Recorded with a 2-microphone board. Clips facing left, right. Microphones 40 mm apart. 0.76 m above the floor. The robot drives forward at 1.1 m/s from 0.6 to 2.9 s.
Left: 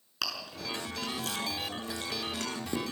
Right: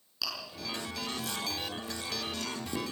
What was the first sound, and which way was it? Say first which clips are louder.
Chewing: left 2 dB; 65° left (ahead or behind).